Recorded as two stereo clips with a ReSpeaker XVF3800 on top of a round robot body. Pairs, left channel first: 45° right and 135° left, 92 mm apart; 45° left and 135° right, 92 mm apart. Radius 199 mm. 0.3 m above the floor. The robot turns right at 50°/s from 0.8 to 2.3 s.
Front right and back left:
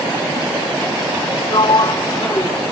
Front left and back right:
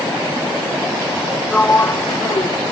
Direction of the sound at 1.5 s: 30° right.